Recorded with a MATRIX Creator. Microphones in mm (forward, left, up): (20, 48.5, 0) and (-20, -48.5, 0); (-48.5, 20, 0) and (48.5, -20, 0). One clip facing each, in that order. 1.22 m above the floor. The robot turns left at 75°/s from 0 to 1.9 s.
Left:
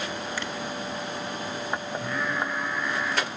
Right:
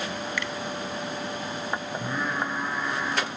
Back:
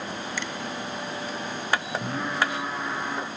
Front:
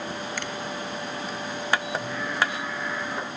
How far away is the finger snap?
About 1.0 m.